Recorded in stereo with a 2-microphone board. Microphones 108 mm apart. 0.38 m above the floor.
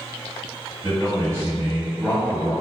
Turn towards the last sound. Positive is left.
turn(degrees=-25)  # may be behind; listen again after turning